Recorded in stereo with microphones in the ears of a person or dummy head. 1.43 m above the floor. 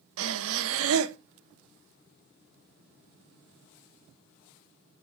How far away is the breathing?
About 0.9 m.